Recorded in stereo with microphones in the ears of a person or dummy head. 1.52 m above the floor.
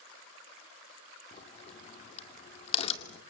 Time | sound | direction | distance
1.3 | a crack | 40° left (ahead or behind) | 2 m